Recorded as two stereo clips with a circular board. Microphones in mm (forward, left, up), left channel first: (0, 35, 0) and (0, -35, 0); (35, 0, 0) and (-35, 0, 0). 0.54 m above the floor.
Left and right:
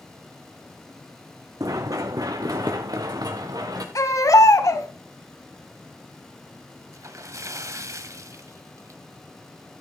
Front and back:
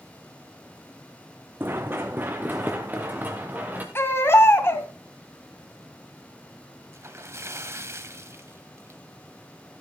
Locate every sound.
1.6 s running footsteps: 120° right, 1.8 m; by 3.9 s 115° right, 3 m
4.0 s a baby crying: 55° left, 2 m
6.9 s a splash: 130° right, 1.0 m